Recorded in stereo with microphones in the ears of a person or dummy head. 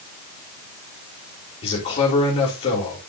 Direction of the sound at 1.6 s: 35° left (ahead or behind).